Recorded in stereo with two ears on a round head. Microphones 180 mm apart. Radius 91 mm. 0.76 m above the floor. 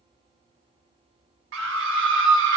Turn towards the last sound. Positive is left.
turn(degrees=-65)  # may be behind; listen again after turning